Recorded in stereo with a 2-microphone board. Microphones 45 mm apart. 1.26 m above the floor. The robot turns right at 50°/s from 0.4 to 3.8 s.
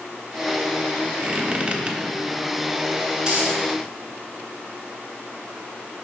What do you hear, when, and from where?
1.2 s a squeak: 10° right (ahead or behind), 0.9 m; by 2.0 s 30° right (ahead or behind), 0.9 m
3.2 s a dropped coin: 15° right (ahead or behind), 3 m; by 3.6 s 35° right (ahead or behind), 3 m